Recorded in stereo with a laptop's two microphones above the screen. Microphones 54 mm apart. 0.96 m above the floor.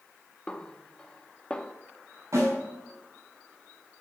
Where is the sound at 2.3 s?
60° right (ahead or behind), 3.5 m.